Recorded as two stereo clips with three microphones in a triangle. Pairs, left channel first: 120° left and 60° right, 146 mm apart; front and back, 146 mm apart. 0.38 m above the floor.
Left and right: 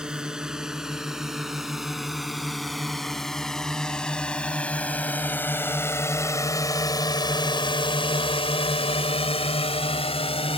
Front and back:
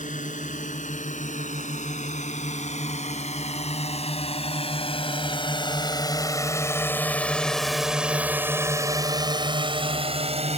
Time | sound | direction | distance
0.0 | a drone | 25° left | ?